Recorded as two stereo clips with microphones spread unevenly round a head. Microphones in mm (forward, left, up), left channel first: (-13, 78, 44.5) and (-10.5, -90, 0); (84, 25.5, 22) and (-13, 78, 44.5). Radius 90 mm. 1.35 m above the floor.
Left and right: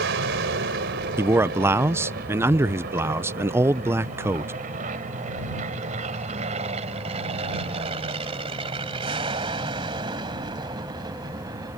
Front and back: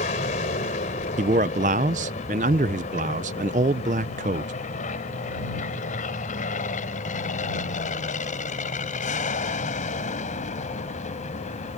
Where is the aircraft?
65° right; by 11.8 s 20° right.